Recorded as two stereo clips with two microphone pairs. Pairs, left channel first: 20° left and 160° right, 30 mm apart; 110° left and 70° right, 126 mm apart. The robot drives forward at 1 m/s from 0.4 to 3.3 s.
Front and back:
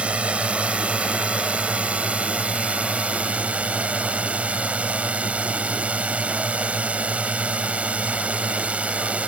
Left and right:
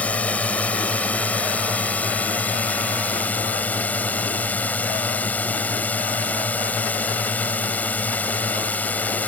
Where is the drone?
175° right.